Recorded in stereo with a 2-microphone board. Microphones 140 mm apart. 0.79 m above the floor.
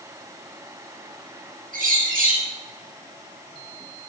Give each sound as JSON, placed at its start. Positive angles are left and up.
{"t": 1.7, "sound": "a bird", "side_deg": -80, "distance_m": 5.5}